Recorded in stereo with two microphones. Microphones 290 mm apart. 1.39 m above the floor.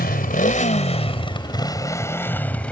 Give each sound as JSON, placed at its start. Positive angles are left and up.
{"t": 0.0, "sound": "a motorcycle", "side_deg": 35}